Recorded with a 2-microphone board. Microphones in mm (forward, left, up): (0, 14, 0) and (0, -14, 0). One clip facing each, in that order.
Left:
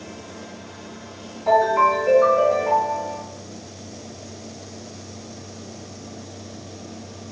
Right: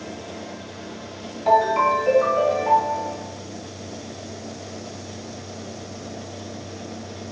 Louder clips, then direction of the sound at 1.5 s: Left 1 dB; 35° right (ahead or behind).